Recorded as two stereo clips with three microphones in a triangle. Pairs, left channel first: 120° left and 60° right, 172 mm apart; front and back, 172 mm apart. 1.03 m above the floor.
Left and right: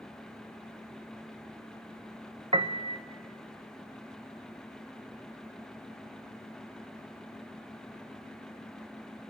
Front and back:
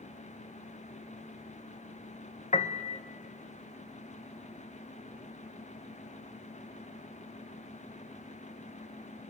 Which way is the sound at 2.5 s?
20° right.